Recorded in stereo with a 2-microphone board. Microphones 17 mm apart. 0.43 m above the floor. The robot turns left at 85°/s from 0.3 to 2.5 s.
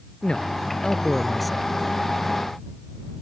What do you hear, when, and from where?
0.2 s a man speaking: 100° left; by 1.8 s 25° right